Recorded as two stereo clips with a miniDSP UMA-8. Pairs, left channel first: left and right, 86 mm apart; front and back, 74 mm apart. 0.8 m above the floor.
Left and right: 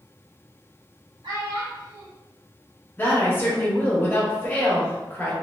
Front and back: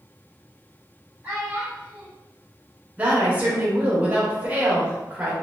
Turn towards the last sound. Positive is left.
turn(degrees=130)